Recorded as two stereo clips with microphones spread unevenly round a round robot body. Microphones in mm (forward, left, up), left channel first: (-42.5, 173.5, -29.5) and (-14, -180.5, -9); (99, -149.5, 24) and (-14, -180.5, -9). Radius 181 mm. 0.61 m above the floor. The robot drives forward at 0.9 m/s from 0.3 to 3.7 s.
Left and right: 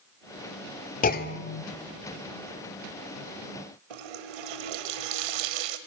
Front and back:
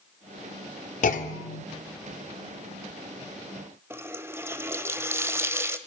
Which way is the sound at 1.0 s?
30° left.